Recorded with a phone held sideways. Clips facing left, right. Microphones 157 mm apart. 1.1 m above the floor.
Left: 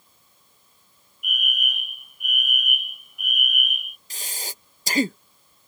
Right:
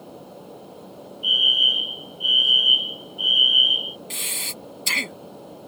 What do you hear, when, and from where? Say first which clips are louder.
0.0 s a fan: right 26 dB; 75° right (ahead or behind)
1.2 s a fire alarm: left 1 dB; centre (ahead or behind)
4.1 s breathing: right 5 dB; 40° left (ahead or behind)